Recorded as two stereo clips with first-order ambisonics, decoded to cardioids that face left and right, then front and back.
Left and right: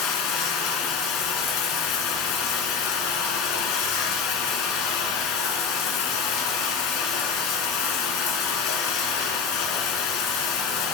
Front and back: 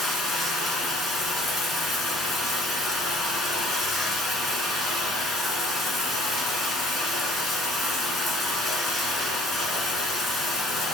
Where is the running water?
70° left, 1.9 m.